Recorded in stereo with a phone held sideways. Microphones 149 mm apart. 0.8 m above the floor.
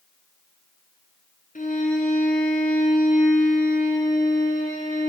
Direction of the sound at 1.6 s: 65° left (ahead or behind).